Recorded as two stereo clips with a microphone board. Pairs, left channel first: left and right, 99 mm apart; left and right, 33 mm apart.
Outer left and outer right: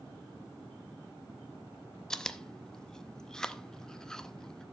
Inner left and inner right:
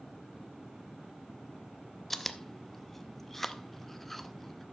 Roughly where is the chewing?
Centre.